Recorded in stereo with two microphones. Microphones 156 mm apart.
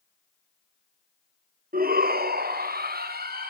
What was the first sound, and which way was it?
A shout, 60° right (ahead or behind).